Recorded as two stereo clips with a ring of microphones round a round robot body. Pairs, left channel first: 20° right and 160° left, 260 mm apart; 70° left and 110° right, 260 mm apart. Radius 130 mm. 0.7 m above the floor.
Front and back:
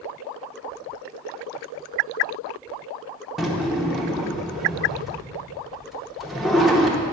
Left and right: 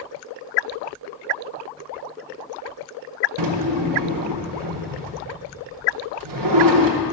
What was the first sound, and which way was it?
A drawer, 115° right.